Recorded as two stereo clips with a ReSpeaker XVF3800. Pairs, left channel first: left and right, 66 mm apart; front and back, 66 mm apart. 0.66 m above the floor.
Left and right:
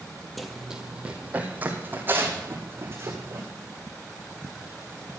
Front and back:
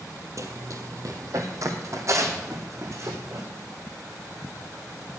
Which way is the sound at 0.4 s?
Straight behind.